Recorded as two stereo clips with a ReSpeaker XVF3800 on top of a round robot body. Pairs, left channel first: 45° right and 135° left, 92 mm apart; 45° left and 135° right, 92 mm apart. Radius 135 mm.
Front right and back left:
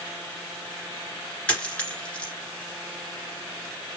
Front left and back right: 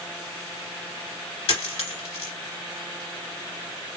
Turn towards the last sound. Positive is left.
turn(degrees=35)